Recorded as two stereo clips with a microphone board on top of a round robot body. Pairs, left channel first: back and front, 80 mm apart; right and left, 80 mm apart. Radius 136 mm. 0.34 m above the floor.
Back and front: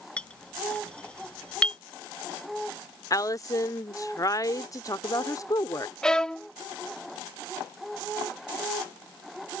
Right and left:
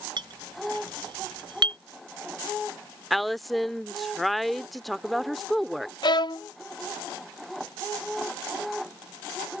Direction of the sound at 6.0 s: 100° right.